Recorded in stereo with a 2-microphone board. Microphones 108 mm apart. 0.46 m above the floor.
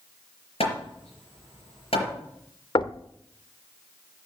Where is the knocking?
55° left (ahead or behind), 0.6 m.